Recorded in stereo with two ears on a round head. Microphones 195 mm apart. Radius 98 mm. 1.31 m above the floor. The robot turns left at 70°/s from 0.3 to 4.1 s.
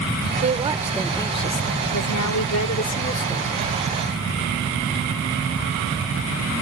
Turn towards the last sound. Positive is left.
turn(degrees=-40)